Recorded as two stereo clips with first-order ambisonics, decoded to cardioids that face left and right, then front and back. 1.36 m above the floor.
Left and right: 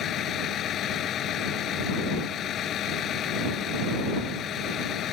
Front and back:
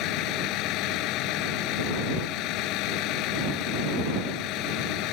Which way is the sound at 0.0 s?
35° left.